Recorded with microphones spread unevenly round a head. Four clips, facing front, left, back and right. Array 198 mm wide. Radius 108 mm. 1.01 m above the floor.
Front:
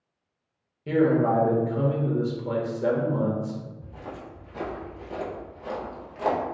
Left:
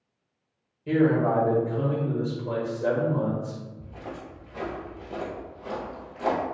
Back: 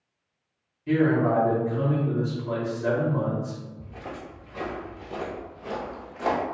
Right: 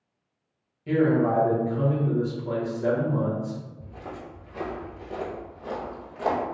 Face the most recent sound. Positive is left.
turn(degrees=10)